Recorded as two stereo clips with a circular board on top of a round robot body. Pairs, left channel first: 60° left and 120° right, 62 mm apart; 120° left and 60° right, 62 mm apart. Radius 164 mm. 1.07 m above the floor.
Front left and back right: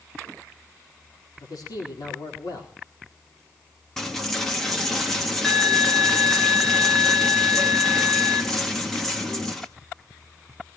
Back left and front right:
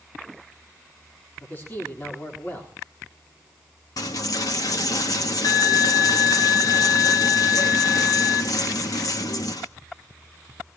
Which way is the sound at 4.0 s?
140° left.